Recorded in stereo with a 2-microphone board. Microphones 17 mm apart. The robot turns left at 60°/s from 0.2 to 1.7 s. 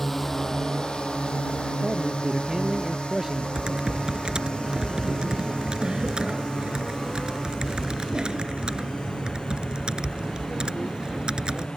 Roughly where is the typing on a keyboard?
Right.